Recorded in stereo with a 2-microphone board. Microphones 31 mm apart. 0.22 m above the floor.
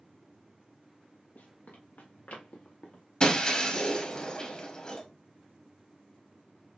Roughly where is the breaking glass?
Left.